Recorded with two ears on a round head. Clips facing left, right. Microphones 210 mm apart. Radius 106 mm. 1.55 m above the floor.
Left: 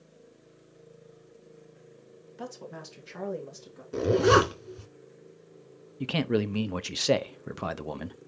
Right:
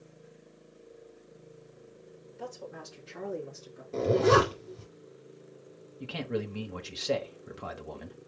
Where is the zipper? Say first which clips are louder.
Left 1 dB; 30° left (ahead or behind), 2 m.